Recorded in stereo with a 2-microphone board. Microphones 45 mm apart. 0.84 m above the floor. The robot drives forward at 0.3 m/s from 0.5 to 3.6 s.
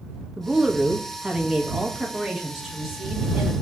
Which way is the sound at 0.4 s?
10° right (ahead or behind).